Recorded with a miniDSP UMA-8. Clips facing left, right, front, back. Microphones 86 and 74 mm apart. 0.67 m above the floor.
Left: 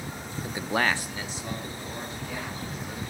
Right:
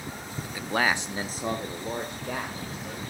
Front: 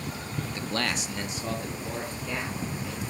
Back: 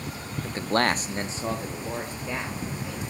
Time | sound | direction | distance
0.4 | a man speaking | 135° left | 0.7 m